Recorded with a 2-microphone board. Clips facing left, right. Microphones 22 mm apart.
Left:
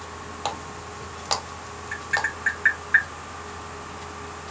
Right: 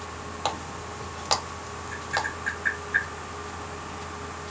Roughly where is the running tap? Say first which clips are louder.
Right 1 dB; centre.